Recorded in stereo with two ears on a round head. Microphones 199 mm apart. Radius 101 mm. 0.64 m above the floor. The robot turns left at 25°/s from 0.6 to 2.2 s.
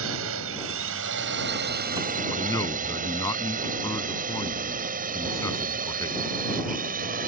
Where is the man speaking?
15° left (ahead or behind).